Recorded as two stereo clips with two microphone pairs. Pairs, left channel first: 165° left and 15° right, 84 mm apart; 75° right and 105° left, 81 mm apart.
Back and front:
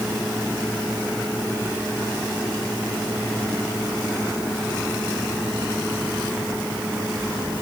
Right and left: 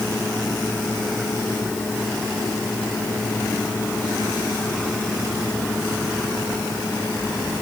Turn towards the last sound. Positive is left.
No sound to turn to.